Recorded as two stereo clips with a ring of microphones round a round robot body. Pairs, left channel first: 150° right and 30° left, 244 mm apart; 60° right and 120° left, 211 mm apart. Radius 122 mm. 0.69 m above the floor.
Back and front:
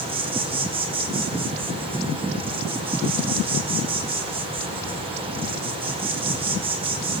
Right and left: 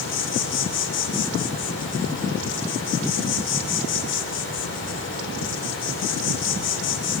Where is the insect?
35° right, 2.5 m.